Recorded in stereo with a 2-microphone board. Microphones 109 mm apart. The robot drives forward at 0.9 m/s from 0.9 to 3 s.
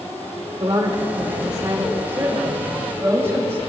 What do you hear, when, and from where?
0.6 s a woman speaking: 40° right (ahead or behind), 1.9 m; by 3.6 s 20° right (ahead or behind), 3.5 m